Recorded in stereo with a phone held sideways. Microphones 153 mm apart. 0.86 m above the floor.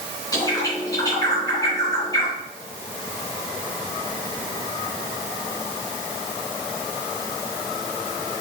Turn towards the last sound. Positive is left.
turn(degrees=25)  # may be behind; listen again after turning